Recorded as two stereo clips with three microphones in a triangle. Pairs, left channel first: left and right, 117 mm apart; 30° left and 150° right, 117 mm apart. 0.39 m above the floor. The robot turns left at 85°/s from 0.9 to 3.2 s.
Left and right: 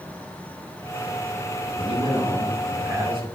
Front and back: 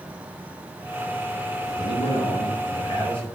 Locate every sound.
1.7 s a man speaking: 80° left, 2.5 m; by 3.2 s 50° right, 2.5 m